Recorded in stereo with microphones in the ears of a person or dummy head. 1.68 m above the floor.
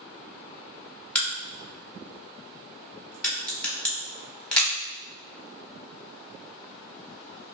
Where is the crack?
5° left (ahead or behind), 1.1 m.